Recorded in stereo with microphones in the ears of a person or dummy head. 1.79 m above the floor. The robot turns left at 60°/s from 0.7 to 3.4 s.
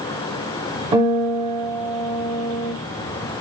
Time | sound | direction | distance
0.9 | a guitar | 150° right | 1.1 m